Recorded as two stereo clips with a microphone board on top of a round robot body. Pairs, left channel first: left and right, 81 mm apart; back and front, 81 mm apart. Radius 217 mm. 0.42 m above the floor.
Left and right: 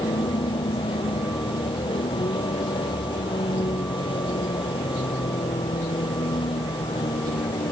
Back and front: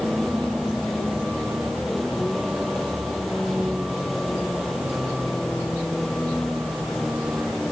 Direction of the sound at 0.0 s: 90° left.